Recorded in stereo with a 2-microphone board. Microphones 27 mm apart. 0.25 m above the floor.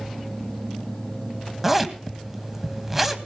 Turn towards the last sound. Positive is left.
turn(degrees=-10)  # may be behind; listen again after turning